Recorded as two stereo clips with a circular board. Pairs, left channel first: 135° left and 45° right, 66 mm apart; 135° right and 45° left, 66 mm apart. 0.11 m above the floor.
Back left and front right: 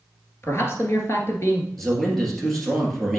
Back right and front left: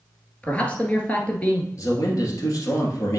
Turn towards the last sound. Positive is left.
turn(degrees=-140)